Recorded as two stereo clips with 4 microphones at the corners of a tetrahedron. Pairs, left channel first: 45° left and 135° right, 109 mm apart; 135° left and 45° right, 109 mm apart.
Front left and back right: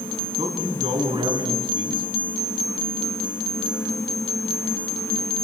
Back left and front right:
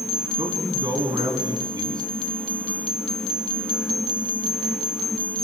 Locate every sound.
0.4 s a man speaking: 100° right, 5 m